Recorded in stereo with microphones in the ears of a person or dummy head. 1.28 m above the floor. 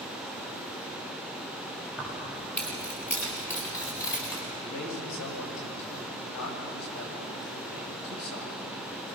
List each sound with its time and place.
2.0 s keys jangling: 5° left (ahead or behind), 6 m; by 4.4 s 20° left (ahead or behind), 7 m
4.6 s a man speaking: 80° left, 5.5 m